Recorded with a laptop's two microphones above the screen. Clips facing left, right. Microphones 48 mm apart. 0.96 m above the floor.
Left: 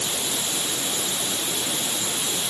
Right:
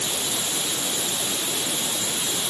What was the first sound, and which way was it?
Only background noise.